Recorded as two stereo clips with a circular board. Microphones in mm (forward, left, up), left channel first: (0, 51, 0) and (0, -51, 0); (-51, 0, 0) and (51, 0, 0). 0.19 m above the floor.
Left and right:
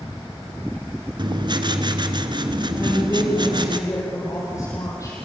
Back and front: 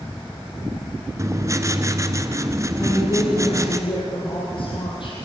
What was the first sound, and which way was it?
Writing, 55° right.